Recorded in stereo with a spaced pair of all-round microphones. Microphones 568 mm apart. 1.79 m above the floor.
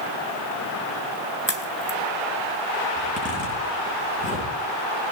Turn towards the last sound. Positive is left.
turn(degrees=15)  # may be behind; listen again after turning